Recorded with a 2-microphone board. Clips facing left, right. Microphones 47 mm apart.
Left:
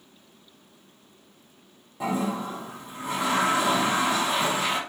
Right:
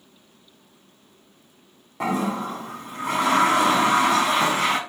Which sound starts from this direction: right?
A toilet flushing, at 2.0 s.